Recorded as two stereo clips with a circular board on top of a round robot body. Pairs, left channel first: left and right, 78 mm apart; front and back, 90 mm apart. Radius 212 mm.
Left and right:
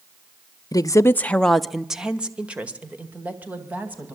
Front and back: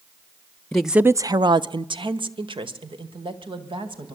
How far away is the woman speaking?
About 0.9 m.